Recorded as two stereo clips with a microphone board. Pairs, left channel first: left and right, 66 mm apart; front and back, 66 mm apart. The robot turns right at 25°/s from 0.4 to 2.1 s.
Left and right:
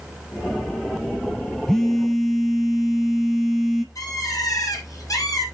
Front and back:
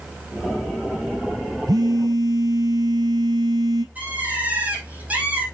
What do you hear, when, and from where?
1.7 s a phone buzzing: 170° left, 1.2 m; by 3.9 s straight behind, 1.2 m
4.0 s a bird: 115° left, 5 m